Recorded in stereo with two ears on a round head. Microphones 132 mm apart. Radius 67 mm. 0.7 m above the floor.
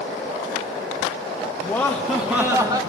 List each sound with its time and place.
1.6 s laughter: 10° left (ahead or behind), 1.1 m; by 2.8 s 25° right (ahead or behind), 1.0 m